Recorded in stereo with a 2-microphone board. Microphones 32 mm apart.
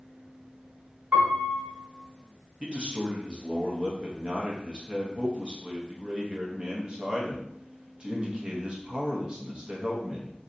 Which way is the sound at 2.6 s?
35° right (ahead or behind).